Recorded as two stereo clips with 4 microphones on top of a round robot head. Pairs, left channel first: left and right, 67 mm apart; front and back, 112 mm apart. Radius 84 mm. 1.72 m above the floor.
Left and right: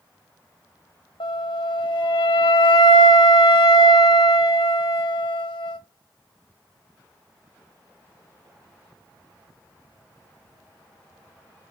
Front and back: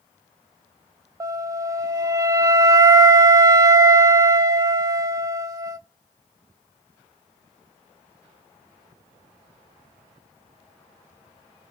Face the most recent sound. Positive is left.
turn(degrees=120)